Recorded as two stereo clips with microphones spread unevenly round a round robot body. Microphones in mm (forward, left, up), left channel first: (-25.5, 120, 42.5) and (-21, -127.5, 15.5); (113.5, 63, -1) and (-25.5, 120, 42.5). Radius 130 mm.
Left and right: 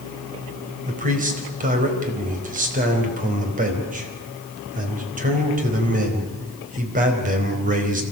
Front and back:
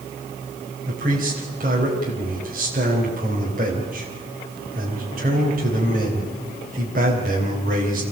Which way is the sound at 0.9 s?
145° right.